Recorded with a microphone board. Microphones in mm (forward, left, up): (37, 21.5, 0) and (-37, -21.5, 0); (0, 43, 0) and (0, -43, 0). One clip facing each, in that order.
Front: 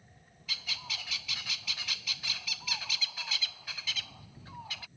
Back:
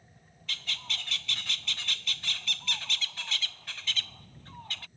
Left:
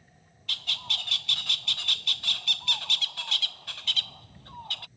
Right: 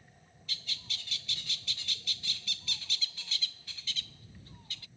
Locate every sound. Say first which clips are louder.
0.5 s a bird: back 2 dB, left 9 dB; 115° left